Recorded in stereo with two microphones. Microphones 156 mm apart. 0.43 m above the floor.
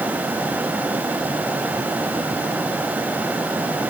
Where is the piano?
I don't hear a piano.